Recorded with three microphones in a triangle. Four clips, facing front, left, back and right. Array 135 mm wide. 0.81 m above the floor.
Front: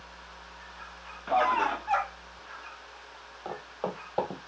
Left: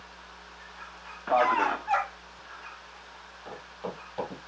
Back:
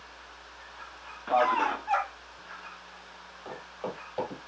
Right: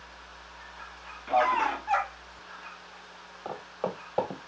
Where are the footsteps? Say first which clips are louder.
Right 5 dB, front 3 dB; 50° right, 1.3 m.